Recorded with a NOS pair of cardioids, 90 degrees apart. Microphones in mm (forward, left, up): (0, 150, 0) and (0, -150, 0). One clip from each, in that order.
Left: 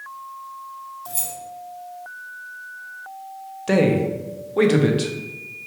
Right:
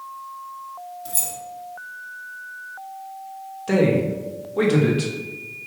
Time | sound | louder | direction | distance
1.1 | keys jangling | right 3 dB | 10° right | 1.0 m
3.7 | a man speaking | left 1 dB | 25° left | 0.8 m